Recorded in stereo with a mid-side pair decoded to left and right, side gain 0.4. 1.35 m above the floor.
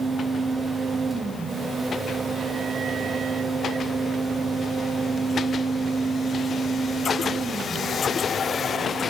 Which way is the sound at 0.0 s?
30° right.